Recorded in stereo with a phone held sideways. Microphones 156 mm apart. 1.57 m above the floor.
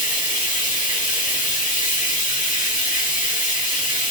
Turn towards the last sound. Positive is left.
turn(degrees=65)  # may be behind; listen again after turning